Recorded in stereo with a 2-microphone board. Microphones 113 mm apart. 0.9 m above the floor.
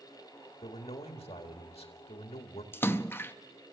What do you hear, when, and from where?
0.6 s a man speaking: 70° left (ahead or behind), 1.7 m
2.7 s a splash: 20° left (ahead or behind), 0.5 m